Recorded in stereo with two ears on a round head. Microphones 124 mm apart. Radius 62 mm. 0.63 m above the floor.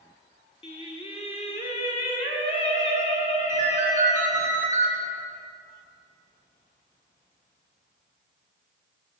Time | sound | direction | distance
0.6 | singing | 45° left (ahead or behind) | 1.3 m
3.5 | a ringtone | 20° right (ahead or behind) | 4 m